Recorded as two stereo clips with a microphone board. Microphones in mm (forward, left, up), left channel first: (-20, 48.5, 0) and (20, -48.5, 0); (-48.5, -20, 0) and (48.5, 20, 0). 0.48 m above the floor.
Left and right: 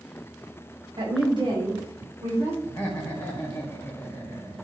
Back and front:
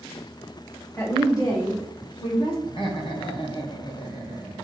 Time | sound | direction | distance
1.0 | a woman speaking | 95° right | 2.5 m
2.6 | laughter | 175° left | 2 m